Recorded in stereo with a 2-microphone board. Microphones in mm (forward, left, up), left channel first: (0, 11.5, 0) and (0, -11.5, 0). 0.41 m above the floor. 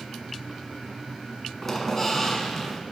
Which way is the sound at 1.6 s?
20° left (ahead or behind).